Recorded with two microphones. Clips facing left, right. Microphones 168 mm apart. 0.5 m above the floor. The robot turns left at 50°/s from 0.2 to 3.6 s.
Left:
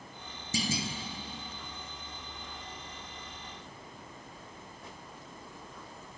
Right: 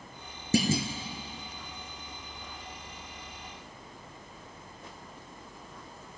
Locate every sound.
0.5 s a clunk: 65° right (ahead or behind), 1.8 m; by 0.9 s 45° right (ahead or behind), 1.8 m